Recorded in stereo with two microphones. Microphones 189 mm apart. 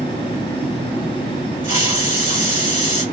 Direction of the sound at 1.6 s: 40° left (ahead or behind).